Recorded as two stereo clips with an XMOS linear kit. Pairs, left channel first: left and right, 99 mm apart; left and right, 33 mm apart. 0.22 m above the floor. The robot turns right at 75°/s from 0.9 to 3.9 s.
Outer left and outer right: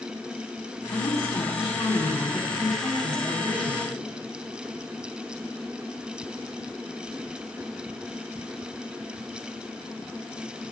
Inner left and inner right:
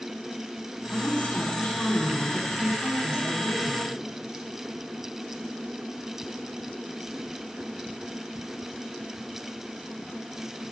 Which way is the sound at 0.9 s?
45° left.